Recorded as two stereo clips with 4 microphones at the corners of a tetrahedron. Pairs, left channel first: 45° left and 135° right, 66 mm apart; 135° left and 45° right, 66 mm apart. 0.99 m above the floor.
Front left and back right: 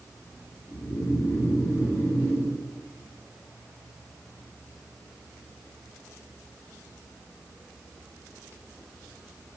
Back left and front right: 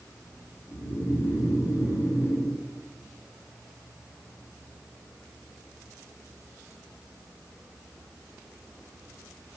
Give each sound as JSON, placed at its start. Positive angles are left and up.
{"t": 0.7, "sound": "snoring", "azimuth_deg": 95, "distance_m": 2.0}